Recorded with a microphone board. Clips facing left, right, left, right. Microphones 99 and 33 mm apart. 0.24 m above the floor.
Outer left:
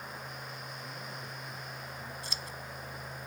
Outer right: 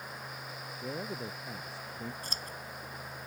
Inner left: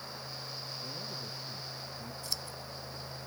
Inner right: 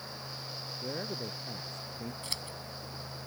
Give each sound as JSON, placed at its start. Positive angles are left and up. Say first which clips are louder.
{"t": 0.8, "sound": "a man speaking", "louder": "outer right 6 dB, inner right 4 dB", "side_deg": -85}
{"t": 2.2, "sound": "scissors", "louder": "even, inner left 2 dB", "side_deg": -50}